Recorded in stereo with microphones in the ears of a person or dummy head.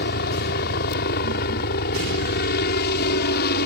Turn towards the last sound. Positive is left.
turn(degrees=55)  # may be behind; listen again after turning